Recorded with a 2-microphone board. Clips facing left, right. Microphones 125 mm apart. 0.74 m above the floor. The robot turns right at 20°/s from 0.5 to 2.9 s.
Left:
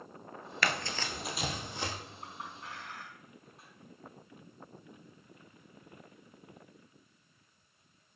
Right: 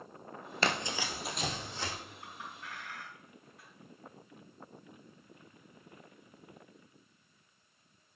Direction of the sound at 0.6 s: 30° right (ahead or behind).